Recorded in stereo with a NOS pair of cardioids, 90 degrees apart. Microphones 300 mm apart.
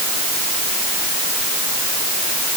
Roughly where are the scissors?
No scissors in this recording.